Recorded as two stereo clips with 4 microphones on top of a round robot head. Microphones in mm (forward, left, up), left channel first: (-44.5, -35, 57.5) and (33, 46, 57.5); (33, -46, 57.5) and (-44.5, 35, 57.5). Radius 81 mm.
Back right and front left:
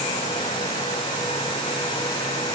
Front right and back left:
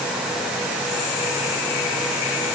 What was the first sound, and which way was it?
Only background noise.